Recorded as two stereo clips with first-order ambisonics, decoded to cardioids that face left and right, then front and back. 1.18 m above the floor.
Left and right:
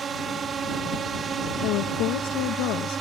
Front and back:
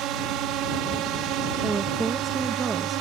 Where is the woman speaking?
105° left.